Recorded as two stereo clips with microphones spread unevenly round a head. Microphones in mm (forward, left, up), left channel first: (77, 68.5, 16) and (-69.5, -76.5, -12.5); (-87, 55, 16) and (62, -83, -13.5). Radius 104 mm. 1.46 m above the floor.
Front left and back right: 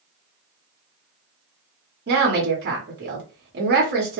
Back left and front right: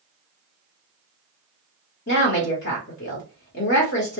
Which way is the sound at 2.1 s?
Straight behind.